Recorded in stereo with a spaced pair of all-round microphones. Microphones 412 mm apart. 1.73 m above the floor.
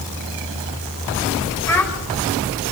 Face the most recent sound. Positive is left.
turn(degrees=5)  # may be behind; listen again after turning